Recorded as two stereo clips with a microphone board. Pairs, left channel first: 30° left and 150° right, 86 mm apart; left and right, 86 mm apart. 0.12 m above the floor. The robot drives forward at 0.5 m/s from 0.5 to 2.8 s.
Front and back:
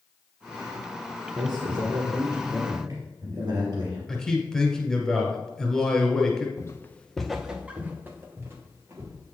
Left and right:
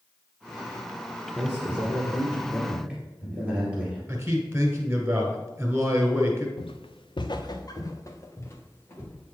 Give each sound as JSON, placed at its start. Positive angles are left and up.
{"t": 1.4, "sound": "a man speaking", "azimuth_deg": -170, "distance_m": 2.0}
{"t": 4.1, "sound": "a man speaking", "azimuth_deg": -45, "distance_m": 1.2}
{"t": 6.6, "sound": "footsteps", "azimuth_deg": 80, "distance_m": 0.7}